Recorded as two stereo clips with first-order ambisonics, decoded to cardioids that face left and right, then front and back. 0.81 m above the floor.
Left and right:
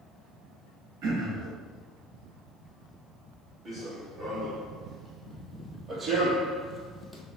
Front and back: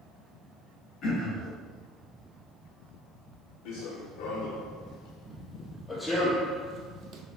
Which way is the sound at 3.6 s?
20° right.